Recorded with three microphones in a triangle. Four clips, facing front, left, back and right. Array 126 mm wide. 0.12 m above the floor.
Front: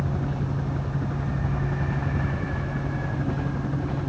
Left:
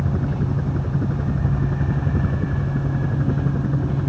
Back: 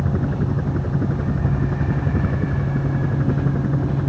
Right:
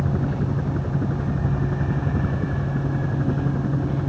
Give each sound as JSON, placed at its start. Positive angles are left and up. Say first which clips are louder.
{"t": 0.0, "sound": "a helicopter", "louder": "even, back 6 dB", "azimuth_deg": -170}